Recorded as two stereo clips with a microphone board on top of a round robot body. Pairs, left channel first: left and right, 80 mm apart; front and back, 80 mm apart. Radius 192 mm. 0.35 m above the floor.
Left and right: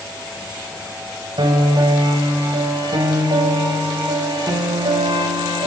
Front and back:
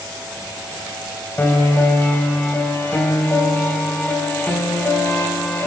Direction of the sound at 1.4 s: 65° right.